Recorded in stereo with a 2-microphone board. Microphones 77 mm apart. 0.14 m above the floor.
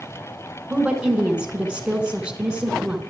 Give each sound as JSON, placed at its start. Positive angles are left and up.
{"t": 0.7, "sound": "a woman speaking", "side_deg": -15, "distance_m": 1.2}